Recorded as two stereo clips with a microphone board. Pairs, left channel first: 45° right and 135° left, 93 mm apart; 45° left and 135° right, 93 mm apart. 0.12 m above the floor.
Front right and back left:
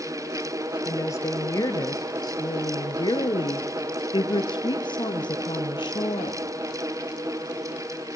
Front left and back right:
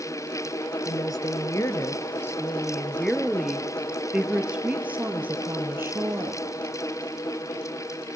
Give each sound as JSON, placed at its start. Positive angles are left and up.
{"t": 0.8, "sound": "a woman speaking", "azimuth_deg": 5, "distance_m": 2.5}